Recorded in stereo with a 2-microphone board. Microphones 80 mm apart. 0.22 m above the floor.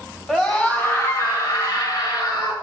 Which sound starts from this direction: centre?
A scream, at 0.3 s.